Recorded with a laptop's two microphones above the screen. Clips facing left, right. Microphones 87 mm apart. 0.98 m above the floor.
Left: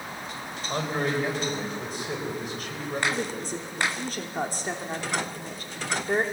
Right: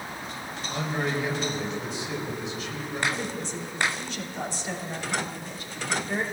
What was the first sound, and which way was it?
A man speaking, 50° left (ahead or behind).